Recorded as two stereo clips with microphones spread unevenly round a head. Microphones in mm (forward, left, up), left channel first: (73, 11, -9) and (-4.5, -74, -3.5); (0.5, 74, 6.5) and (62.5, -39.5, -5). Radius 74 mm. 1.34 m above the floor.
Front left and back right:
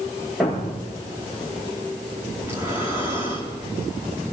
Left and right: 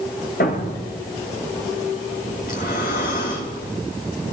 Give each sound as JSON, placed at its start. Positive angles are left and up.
{"t": 0.4, "sound": "a thud", "azimuth_deg": 140, "distance_m": 7.5}
{"t": 2.4, "sound": "breathing", "azimuth_deg": 155, "distance_m": 4.0}